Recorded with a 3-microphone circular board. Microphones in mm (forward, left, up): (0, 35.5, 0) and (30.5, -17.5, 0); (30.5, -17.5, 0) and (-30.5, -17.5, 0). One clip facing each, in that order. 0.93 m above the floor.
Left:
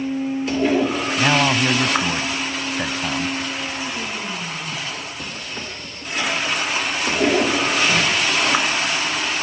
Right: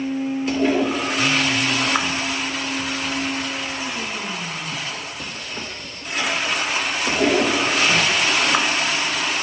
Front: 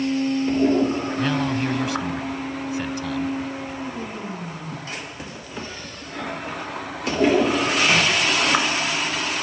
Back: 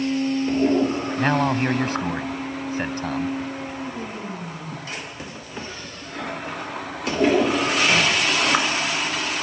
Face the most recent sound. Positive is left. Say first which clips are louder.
# left 5 dB, back 5 dB
turn(degrees=130)